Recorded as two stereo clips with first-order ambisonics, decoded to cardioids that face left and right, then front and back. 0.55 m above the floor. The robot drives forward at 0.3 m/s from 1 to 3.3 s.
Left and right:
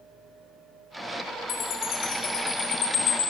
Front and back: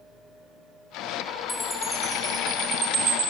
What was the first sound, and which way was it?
A chime, 80° left.